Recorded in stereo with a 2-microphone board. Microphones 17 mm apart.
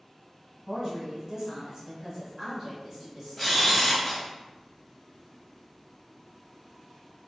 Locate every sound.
0.7 s a woman speaking: 35° right (ahead or behind), 1.2 m; by 3.7 s 25° right (ahead or behind), 1.7 m
3.4 s a camera shutter: 10° left (ahead or behind), 0.9 m